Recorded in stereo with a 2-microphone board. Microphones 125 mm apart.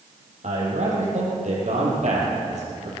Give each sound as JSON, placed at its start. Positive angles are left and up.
{"t": 0.4, "sound": "a man speaking", "side_deg": -70, "distance_m": 5.5}